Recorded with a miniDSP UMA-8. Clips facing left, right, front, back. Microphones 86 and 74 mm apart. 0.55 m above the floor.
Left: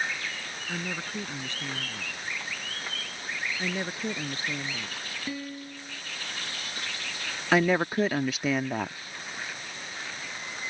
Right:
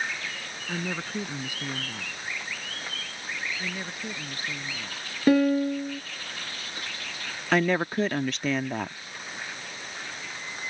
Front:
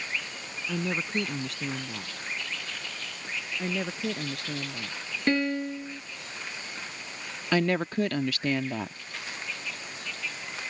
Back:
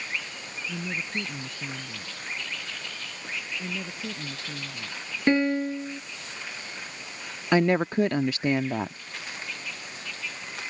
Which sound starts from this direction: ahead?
A woman speaking, at 0.7 s.